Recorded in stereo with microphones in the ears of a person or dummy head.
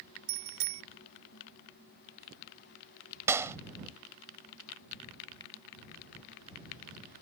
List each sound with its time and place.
0.3 s a bicycle bell: 65° right (ahead or behind)
3.3 s a clap: 15° right (ahead or behind)